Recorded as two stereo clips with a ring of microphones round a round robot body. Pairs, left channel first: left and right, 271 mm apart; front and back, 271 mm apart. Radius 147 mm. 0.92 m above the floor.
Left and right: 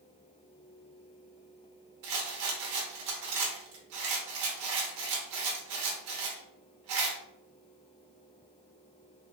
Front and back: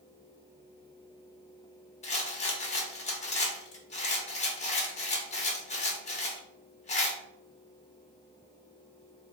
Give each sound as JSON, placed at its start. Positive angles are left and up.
{"t": 2.0, "sound": "a rattle", "azimuth_deg": -65, "distance_m": 0.7}